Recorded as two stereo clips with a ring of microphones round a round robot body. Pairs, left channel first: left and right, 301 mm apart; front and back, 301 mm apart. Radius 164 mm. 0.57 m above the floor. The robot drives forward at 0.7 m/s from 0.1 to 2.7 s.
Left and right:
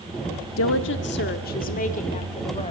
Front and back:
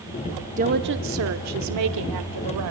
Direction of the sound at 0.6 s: 120° left.